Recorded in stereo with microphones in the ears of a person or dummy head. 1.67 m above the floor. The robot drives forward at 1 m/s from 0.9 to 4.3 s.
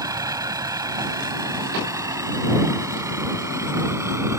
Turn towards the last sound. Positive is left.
turn(degrees=-15)  # may be behind; listen again after turning